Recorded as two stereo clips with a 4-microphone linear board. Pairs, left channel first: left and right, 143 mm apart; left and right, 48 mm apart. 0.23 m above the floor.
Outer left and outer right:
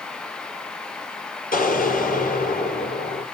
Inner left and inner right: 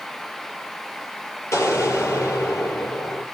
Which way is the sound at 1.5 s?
75° left (ahead or behind).